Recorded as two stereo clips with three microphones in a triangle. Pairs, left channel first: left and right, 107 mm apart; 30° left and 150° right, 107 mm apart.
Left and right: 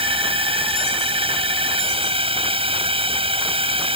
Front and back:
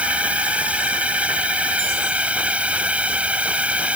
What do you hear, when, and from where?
0.0 s a drone: 75° right